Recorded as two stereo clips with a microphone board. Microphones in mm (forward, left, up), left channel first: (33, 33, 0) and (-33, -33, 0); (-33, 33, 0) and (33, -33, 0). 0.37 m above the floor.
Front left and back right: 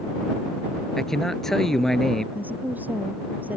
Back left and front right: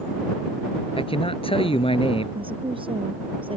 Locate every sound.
1.0 s a man speaking: 130° left
2.4 s a woman speaking: 65° right